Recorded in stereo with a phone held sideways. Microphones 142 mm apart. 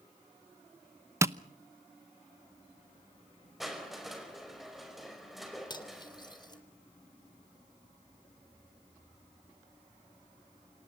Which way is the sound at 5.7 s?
30° left (ahead or behind).